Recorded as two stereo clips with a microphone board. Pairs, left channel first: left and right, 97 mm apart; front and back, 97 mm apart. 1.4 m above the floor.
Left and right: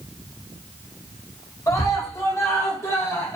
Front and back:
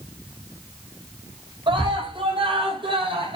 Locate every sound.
1.7 s a scream: 145° left, 7.5 m; by 3.4 s 150° left, 8 m